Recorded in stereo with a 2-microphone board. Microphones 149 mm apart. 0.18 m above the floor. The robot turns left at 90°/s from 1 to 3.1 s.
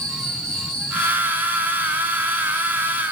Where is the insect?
160° right, 6 m; by 3.1 s 10° left, 6 m.